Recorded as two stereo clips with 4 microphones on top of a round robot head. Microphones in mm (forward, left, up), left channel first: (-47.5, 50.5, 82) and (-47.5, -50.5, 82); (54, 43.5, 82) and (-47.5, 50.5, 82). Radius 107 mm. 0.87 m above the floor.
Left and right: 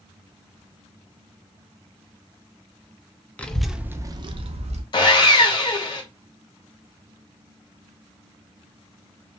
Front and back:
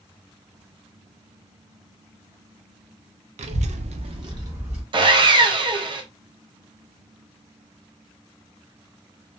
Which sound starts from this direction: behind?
A child speaking, at 3.4 s.